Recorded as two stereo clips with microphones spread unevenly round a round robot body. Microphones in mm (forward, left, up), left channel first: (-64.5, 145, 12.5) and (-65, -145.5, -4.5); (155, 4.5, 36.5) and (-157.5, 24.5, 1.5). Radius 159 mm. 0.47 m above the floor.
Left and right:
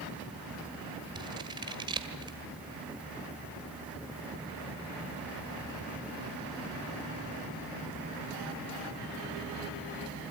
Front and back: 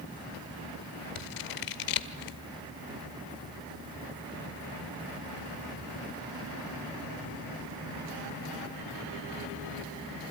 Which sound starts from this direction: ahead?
Scissors, at 1.1 s.